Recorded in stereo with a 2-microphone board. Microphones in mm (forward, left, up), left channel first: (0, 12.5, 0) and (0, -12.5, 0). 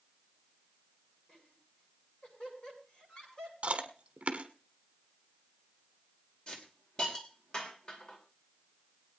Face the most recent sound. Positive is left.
turn(degrees=45)  # may be behind; listen again after turning